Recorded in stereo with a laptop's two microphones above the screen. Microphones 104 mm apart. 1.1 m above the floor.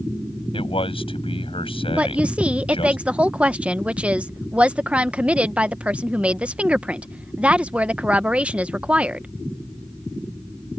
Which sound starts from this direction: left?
A man speaking, at 0.5 s.